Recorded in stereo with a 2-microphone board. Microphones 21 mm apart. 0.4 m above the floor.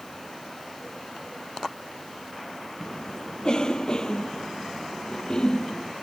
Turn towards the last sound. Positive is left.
turn(degrees=35)  # may be behind; listen again after turning